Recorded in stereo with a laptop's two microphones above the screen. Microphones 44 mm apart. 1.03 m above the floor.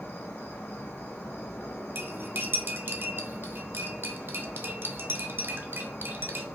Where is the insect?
75° left (ahead or behind), 1.8 m.